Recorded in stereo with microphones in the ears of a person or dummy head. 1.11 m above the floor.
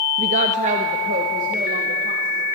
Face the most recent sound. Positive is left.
turn(degrees=-50)  # may be behind; listen again after turning